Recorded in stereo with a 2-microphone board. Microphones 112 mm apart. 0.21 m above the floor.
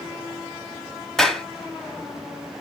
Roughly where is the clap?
Centre.